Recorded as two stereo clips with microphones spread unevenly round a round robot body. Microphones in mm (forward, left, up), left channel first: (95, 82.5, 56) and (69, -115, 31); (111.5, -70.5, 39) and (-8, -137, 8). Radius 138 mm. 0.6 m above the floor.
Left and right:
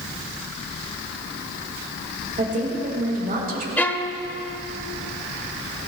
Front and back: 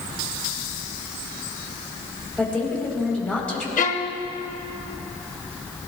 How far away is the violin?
About 1.0 m.